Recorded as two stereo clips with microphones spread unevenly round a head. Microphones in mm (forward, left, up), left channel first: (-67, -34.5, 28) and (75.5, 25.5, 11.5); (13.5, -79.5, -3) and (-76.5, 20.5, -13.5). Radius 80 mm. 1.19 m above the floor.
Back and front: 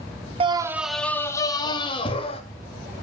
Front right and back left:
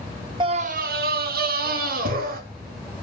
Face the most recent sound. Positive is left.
turn(degrees=145)